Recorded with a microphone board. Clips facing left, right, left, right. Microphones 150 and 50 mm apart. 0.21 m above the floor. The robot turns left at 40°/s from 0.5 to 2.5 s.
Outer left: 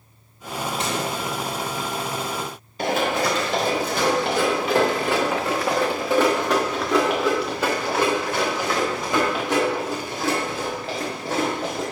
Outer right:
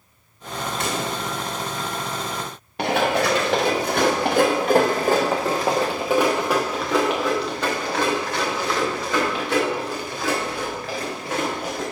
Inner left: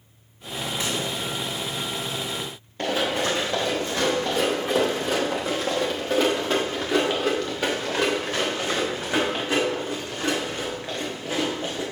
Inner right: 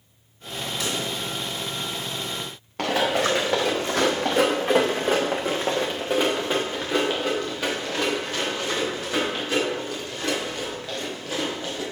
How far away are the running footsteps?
About 1.9 m.